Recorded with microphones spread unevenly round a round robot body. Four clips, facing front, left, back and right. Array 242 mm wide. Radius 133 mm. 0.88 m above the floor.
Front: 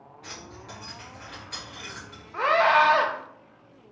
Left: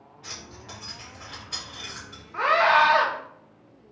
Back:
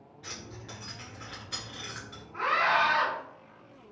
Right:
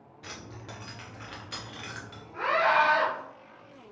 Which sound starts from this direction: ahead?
A scream, at 2.3 s.